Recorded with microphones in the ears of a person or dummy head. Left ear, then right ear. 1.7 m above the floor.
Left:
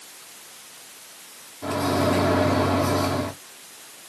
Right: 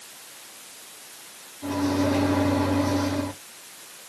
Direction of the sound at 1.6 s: 30° left (ahead or behind).